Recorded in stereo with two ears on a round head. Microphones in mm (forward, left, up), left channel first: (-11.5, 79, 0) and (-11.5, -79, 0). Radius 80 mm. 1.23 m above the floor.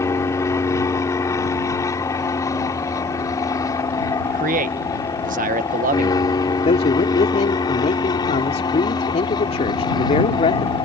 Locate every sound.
0.0 s an aircraft: 15° left (ahead or behind); by 10.9 s 25° left (ahead or behind)
4.3 s a man speaking: 45° right (ahead or behind)
6.7 s a man speaking: 35° left (ahead or behind)